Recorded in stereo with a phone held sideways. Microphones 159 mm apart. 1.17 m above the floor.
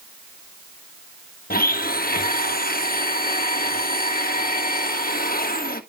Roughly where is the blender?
Left.